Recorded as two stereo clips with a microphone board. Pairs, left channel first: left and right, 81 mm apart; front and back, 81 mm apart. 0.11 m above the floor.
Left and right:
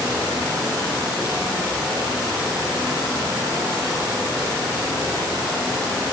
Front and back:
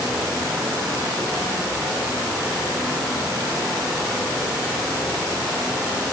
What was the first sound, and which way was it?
Only background noise.